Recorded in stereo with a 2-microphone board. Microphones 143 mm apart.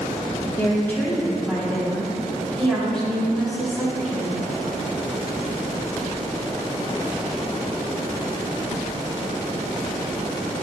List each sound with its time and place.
0.6 s a woman speaking: 25° left (ahead or behind), 1.6 m; by 4.4 s centre (ahead or behind), 6 m